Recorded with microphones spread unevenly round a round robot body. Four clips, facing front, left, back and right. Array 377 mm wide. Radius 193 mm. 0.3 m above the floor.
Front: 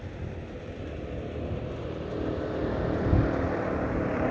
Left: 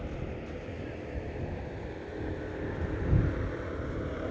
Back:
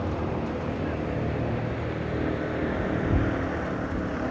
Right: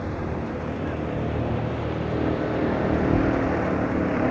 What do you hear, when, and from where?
0.0 s a vehicle: 140° right; by 4.3 s 90° right